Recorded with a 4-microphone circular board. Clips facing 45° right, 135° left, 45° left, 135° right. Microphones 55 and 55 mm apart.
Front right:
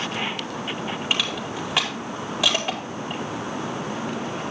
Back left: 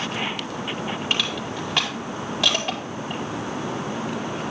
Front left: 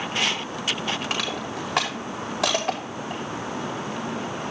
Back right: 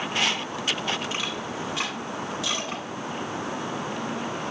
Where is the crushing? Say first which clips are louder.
Front right 1 dB, front left 2 dB; 35° left, 4.5 m.